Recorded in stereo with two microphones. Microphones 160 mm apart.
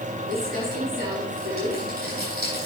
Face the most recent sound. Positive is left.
turn(degrees=-85)